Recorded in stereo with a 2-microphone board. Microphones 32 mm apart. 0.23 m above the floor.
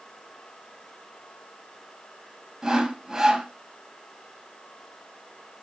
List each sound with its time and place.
2.6 s sawing: 20° right (ahead or behind), 1.5 m